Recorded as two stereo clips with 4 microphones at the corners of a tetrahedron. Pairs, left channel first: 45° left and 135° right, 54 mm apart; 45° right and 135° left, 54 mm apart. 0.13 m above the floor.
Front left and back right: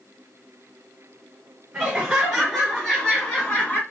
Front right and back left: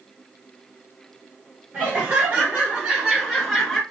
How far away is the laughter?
About 1.9 m.